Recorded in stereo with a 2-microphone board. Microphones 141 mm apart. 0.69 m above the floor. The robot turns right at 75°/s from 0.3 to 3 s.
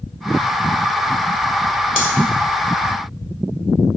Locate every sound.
2.0 s cutlery clinking: 80° left, 1.8 m